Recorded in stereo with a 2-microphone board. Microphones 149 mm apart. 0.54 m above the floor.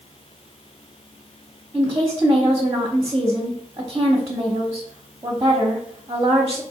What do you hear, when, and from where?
1.7 s a woman speaking: 25° right (ahead or behind), 0.8 m